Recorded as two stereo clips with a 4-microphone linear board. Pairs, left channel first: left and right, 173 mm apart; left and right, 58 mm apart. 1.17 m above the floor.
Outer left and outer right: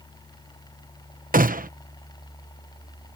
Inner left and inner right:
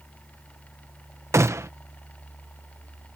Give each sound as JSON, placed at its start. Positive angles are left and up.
{"t": 1.3, "sound": "a gunshot", "side_deg": -55}